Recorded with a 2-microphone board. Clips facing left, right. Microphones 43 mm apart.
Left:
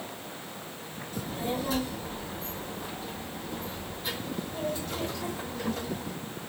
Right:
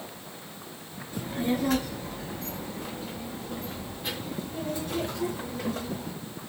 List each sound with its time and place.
1.1 s a child speaking: 35° right (ahead or behind), 1.3 m; by 6.1 s 45° right (ahead or behind), 4.5 m